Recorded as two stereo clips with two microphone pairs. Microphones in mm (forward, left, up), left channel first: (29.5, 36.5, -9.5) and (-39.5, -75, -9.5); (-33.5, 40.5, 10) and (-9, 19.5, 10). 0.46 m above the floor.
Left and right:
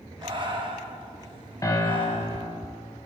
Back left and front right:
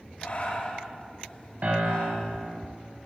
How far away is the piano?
About 0.7 m.